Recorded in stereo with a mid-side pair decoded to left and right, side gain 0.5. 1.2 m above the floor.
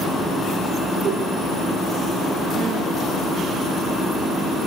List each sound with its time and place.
1.0 s a whoosh: 50° right, 1.7 m